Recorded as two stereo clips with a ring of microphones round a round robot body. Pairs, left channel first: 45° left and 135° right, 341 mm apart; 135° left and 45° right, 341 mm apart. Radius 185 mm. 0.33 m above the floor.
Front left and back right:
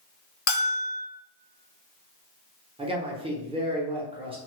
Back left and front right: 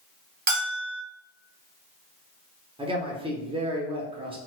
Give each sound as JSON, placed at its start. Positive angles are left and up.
{"t": 0.5, "sound": "a bell", "azimuth_deg": 10, "distance_m": 2.0}
{"t": 2.8, "sound": "a man speaking", "azimuth_deg": -90, "distance_m": 0.8}